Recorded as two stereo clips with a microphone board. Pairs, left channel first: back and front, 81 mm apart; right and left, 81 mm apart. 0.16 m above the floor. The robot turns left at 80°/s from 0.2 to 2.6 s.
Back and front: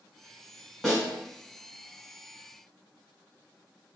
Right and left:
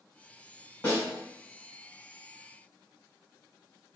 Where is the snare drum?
95° right, 1.3 m; by 1.1 s 110° right, 1.3 m.